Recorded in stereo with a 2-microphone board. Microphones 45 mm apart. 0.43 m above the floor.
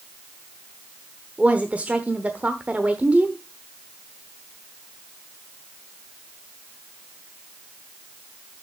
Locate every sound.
1.4 s a woman speaking: 30° right (ahead or behind), 1.0 m